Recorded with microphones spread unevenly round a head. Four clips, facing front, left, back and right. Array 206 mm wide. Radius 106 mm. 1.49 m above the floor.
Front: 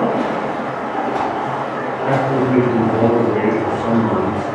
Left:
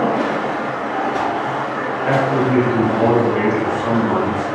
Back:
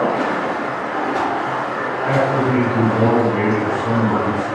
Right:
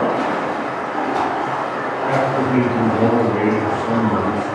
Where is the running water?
10° right, 1.4 m.